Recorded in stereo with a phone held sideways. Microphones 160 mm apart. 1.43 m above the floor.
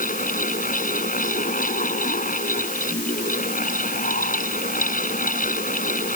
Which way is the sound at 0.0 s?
60° left (ahead or behind).